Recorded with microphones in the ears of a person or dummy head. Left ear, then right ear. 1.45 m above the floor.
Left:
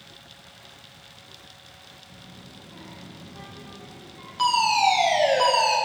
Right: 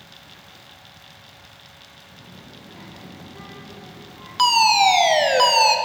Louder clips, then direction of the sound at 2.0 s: Right 2 dB; 5° right (ahead or behind).